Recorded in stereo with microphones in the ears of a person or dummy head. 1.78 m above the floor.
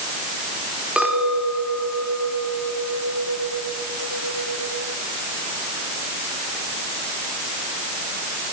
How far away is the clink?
About 4 m.